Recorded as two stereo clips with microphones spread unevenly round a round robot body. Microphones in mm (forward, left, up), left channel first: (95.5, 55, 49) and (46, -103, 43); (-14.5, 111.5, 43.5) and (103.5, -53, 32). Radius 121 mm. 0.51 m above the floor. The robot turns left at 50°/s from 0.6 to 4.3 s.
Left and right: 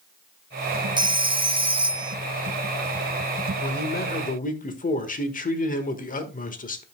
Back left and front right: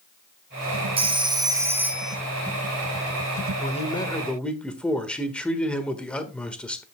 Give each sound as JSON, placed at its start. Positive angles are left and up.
{"t": 1.0, "sound": "a phone ringing", "azimuth_deg": -80, "distance_m": 0.7}
{"t": 3.6, "sound": "a man speaking", "azimuth_deg": 75, "distance_m": 1.4}